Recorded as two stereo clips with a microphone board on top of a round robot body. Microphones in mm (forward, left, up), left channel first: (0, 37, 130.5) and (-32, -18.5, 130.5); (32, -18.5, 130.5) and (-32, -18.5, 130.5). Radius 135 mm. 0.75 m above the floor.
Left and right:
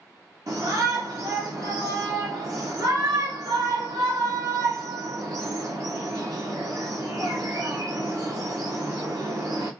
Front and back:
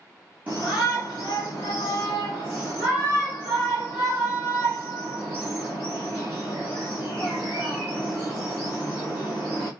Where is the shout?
120° right, 1.8 m.